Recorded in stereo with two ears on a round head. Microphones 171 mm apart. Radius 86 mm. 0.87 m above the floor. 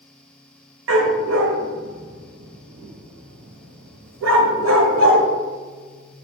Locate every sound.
0.9 s a dog barking: 75° right (ahead or behind), 1.6 m